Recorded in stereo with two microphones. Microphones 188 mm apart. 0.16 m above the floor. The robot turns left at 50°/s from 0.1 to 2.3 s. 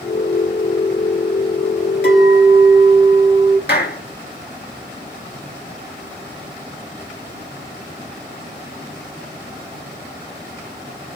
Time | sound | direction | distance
2.0 | a clink | 65° left (ahead or behind) | 1.7 m
3.7 | a clap | 60° left (ahead or behind) | 1.7 m